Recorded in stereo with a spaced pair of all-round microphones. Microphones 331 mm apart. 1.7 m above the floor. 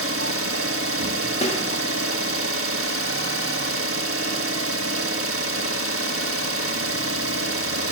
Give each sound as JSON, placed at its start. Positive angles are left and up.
{"t": 0.0, "sound": "an engine running", "side_deg": -40, "distance_m": 1.4}
{"t": 1.4, "sound": "a snare drum", "side_deg": 20, "distance_m": 1.7}